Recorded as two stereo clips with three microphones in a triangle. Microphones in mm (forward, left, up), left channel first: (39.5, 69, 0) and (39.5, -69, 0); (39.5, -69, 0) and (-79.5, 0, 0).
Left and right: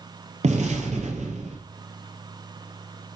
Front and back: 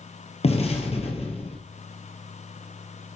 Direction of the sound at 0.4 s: 65° right.